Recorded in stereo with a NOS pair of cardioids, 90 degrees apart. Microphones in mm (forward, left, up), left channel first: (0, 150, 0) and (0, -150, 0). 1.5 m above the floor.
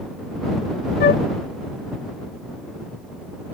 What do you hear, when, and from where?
1.0 s a flute: 35° left